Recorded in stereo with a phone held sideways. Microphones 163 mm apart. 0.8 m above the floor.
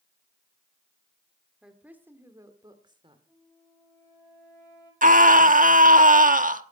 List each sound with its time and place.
1.6 s a woman speaking: 5° right (ahead or behind), 2.5 m; by 3.2 s 30° right (ahead or behind), 2.5 m
3.3 s a flute: 20° left (ahead or behind), 4.5 m
5.0 s a scream: 55° right (ahead or behind), 1.1 m